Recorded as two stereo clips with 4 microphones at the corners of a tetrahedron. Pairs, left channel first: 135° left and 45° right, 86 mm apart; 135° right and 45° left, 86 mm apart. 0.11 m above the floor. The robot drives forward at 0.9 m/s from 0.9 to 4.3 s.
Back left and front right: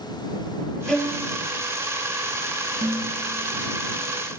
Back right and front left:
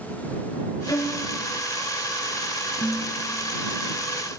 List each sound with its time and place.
0.9 s a violin: 140° right, 1.9 m; by 1.2 s 150° right, 2 m
2.8 s dishes clattering: 30° right, 1.2 m; by 3.6 s 105° right, 1.0 m